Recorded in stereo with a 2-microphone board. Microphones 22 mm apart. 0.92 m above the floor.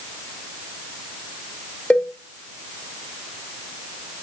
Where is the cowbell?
80° left, 2 m.